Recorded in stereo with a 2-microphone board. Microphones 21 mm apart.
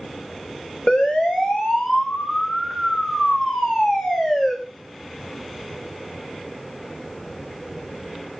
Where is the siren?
70° left (ahead or behind), 6.5 m; by 4.5 s 45° left (ahead or behind), 7 m.